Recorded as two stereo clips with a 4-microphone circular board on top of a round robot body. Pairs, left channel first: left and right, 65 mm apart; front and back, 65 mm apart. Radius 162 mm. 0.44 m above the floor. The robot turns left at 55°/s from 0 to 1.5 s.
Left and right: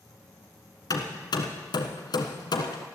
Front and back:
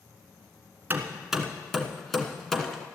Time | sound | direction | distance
0.9 | hammering | 120° left | 1.4 m